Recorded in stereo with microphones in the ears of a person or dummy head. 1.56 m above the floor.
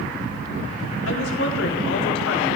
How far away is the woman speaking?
About 4 m.